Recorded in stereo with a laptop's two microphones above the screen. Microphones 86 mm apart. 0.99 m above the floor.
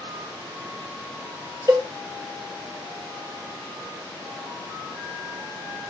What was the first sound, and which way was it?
A cowbell, 40° right (ahead or behind).